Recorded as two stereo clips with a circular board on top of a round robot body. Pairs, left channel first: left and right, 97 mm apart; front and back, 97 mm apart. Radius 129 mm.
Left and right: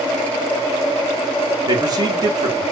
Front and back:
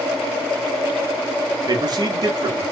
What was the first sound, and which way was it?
A man speaking, 135° right.